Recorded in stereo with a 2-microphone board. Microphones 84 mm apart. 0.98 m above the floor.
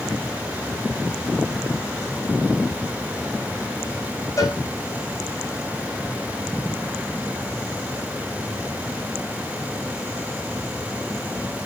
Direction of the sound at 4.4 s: 40° left (ahead or behind).